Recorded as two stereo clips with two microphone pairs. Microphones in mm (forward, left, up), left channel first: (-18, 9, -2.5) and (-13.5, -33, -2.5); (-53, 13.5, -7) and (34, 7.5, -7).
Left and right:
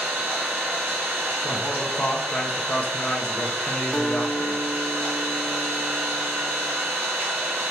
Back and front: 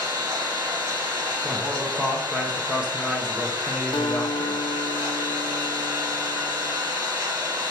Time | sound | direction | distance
0.0 | an engine running | 55° right | 2 m
1.4 | a man speaking | 70° left | 0.5 m
3.9 | a guitar | straight behind | 0.6 m